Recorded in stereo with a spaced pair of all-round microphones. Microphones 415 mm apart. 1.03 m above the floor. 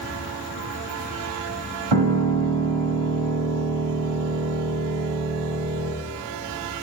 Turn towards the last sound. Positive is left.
turn(degrees=-85)